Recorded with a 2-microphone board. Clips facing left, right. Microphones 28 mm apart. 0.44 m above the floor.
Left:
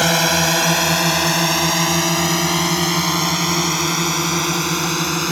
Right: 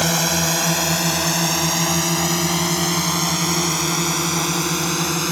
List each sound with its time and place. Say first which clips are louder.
0.0 s a drone: left 4 dB; 25° left (ahead or behind); by 5.3 s 10° left (ahead or behind)